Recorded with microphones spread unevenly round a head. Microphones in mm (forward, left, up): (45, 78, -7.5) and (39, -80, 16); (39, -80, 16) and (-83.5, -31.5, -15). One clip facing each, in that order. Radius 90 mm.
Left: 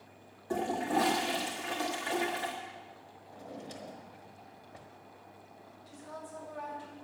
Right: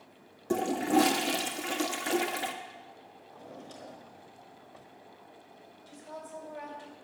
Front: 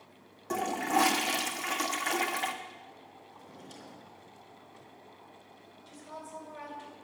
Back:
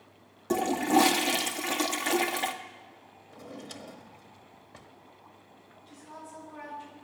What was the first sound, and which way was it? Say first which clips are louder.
A toilet flushing: right 5 dB, back 5 dB; 145° right.